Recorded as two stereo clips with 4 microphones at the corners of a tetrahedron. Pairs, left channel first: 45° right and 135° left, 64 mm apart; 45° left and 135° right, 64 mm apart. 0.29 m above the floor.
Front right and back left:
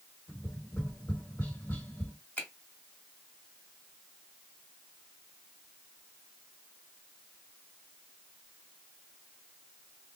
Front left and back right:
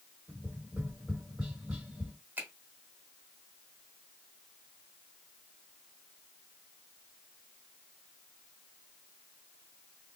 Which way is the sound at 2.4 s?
90° right.